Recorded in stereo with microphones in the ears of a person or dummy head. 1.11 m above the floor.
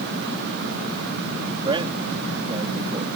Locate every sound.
1.6 s a man speaking: 25° right (ahead or behind)